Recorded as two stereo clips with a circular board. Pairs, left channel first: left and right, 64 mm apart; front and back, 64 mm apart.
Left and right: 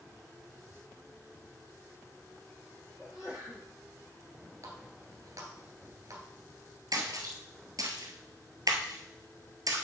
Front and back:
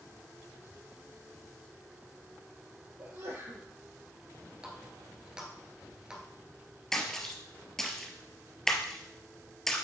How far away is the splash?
About 1.2 m.